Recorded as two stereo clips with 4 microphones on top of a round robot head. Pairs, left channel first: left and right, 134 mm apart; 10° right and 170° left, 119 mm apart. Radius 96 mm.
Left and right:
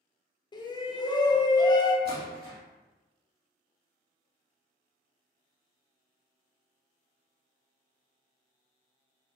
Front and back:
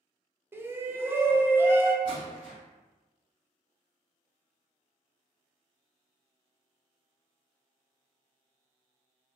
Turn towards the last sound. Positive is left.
turn(degrees=-75)